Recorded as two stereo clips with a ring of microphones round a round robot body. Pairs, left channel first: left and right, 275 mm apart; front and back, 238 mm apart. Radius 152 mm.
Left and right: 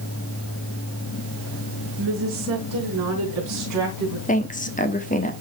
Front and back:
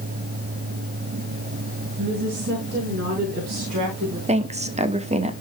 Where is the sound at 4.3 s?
135° left, 1.2 m.